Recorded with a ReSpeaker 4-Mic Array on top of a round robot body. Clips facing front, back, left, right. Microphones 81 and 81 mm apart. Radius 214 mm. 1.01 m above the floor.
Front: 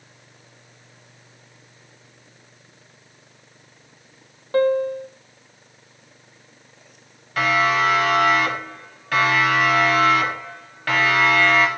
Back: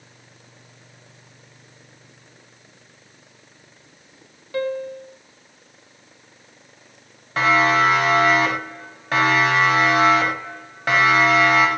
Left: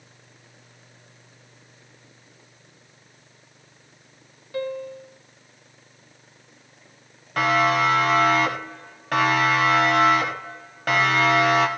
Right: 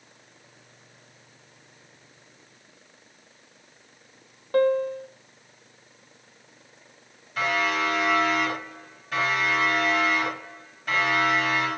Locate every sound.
4.5 s a piano: 50° right, 0.6 m
7.4 s a siren: 120° left, 9 m; by 11.7 s 105° left, 5.5 m